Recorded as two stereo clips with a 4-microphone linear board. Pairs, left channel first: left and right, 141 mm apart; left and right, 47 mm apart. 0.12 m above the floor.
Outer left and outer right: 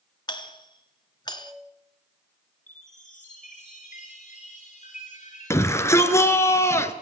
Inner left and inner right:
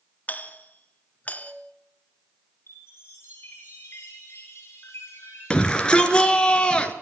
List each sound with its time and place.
0.3 s a doorbell: 30° left (ahead or behind), 1.9 m
2.7 s a chime: 55° left (ahead or behind), 10 m
5.5 s a shout: 20° left (ahead or behind), 2 m